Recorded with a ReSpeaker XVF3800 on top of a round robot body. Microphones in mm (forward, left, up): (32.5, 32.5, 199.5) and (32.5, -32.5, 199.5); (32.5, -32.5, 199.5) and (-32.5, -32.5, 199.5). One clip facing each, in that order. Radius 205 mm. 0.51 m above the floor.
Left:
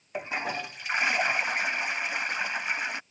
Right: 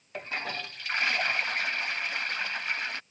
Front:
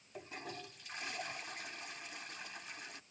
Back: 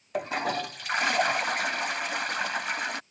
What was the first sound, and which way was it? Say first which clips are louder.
A toilet flushing: left 3 dB, back 18 dB; 165° left.